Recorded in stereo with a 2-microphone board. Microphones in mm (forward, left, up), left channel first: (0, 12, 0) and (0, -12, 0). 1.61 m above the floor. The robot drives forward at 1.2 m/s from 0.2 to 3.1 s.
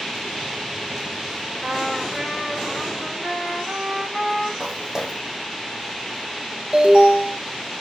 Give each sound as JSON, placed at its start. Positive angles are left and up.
{"t": 1.6, "sound": "a trumpet", "side_deg": -40, "distance_m": 3.5}
{"t": 4.6, "sound": "footsteps", "side_deg": -20, "distance_m": 3.0}
{"t": 6.7, "sound": "an alarm", "side_deg": -45, "distance_m": 4.0}